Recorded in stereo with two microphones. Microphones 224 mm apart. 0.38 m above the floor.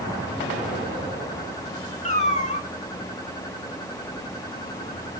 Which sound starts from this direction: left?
A cat meowing, at 2.0 s.